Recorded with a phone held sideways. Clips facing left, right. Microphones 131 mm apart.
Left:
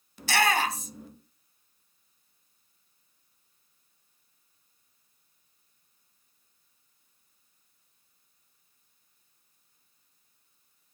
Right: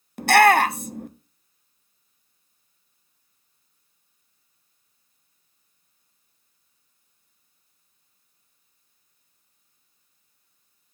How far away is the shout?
About 0.7 m.